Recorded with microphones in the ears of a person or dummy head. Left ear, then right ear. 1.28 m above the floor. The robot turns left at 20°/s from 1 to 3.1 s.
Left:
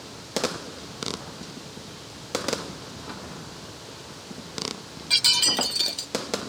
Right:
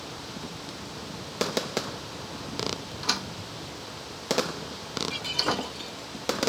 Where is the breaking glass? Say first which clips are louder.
Left 9 dB; 50° left (ahead or behind).